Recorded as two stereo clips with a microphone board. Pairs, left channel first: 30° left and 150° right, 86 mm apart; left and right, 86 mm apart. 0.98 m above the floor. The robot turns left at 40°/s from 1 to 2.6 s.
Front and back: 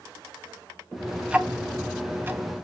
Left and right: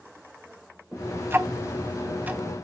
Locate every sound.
1.3 s ticking: 90° right, 0.5 m; by 2.5 s 140° right, 0.5 m